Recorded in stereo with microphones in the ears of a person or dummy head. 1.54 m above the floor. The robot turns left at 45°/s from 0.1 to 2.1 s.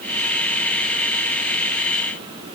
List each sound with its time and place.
Only background noise.